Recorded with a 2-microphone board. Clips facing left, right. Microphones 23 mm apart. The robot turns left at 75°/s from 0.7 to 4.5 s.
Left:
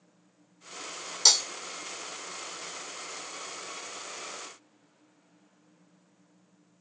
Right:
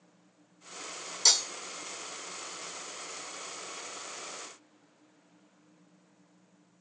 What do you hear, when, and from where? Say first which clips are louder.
1.2 s breaking glass: left 3 dB; 30° left (ahead or behind), 0.9 m; by 1.4 s 45° left (ahead or behind), 0.9 m